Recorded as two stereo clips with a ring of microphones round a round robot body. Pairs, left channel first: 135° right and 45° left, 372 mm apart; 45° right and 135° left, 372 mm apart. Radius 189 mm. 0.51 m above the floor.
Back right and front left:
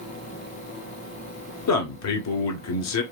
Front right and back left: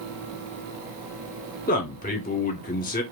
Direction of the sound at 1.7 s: 105° right.